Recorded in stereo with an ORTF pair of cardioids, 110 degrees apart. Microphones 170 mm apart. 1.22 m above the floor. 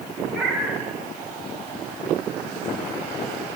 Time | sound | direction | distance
0.3 | a cat meowing | 5° right | 4.5 m